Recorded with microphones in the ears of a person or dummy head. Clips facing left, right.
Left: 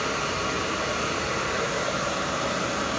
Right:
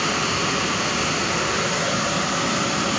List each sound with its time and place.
0.0 s running water: 65° right (ahead or behind), 1.0 m